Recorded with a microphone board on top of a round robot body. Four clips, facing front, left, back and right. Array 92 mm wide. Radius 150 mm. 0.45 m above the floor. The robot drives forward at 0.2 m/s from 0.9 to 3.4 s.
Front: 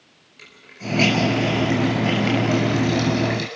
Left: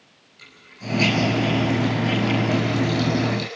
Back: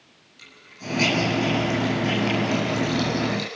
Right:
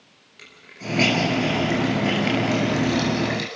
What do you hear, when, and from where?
0.4 s a hiss: 60° right, 6.5 m; by 3.5 s 65° right, 6 m